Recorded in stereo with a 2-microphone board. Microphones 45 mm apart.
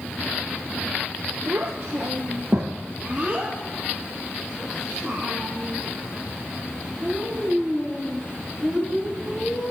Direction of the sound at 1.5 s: 70° right (ahead or behind).